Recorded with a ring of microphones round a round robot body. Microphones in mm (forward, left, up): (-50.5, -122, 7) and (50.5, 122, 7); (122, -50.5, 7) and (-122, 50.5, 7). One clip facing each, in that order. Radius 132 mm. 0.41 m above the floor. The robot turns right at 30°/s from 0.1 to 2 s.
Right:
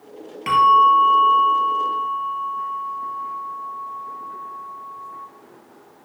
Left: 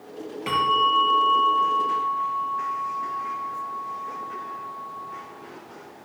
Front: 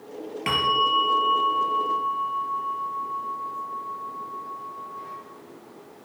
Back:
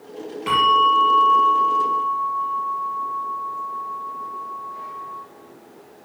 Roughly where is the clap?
I don't hear a clap.